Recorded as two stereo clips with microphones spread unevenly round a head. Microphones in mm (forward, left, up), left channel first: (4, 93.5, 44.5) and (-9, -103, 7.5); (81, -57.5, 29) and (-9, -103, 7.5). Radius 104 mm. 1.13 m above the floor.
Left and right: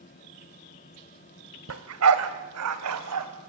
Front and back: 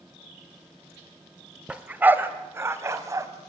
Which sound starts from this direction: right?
A dog barking, at 1.7 s.